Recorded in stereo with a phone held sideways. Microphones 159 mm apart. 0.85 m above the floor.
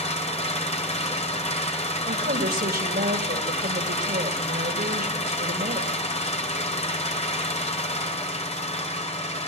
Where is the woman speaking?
70° right (ahead or behind), 3 m.